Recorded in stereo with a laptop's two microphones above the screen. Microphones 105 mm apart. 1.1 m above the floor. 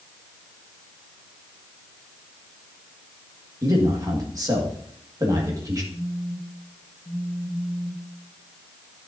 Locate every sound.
3.6 s a man speaking: 35° right (ahead or behind), 1.5 m
5.9 s a phone buzzing: 25° left (ahead or behind), 3.5 m